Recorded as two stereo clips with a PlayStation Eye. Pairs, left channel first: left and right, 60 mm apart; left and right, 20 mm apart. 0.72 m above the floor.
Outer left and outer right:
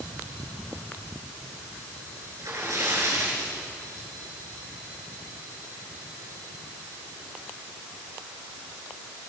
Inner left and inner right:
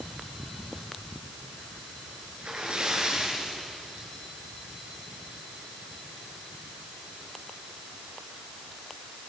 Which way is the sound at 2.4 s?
60° right (ahead or behind).